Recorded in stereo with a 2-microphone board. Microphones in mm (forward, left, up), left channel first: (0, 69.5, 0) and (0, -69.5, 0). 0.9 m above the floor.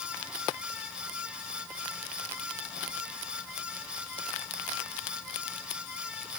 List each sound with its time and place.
Only background noise.